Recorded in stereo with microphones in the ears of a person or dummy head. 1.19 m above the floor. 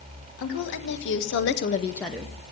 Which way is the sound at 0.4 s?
55° left (ahead or behind).